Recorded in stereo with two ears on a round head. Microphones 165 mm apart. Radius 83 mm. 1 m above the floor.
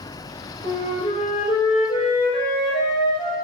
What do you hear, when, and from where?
0.6 s a flute: 30° left (ahead or behind), 0.6 m